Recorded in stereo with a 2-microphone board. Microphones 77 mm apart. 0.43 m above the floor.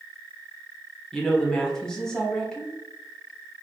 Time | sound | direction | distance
1.1 | a woman speaking | 10° left (ahead or behind) | 1.0 m